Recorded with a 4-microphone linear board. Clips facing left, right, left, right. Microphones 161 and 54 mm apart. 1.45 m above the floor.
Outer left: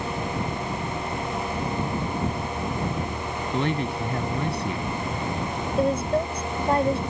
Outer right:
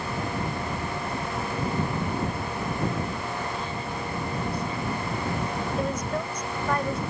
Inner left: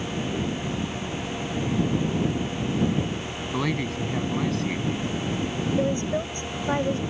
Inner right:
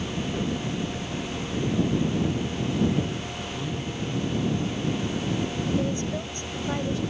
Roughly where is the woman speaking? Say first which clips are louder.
Outer left 9 dB, inner left 3 dB; left.